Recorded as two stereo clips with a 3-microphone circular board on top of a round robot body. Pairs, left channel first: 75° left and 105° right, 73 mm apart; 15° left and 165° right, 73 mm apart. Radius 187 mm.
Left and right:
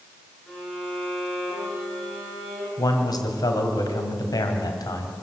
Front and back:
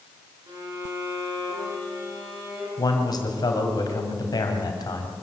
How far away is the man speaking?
About 3 m.